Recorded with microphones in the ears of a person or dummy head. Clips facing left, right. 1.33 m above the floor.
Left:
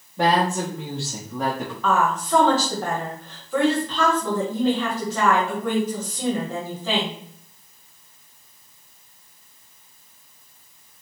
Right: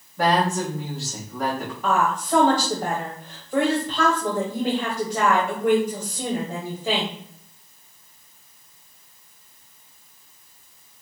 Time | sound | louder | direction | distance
0.2 | a woman speaking | left 1 dB | 25° left (ahead or behind) | 1.3 m
1.8 | a woman speaking | left 1 dB | 15° right (ahead or behind) | 1.1 m